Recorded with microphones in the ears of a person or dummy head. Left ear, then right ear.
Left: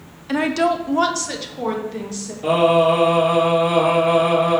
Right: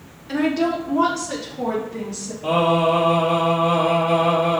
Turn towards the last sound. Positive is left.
turn(degrees=55)  # may be behind; listen again after turning